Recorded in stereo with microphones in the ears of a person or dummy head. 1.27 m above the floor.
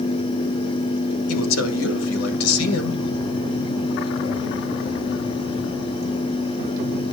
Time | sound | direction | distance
1.3 | a man speaking | 85° left | 1.8 m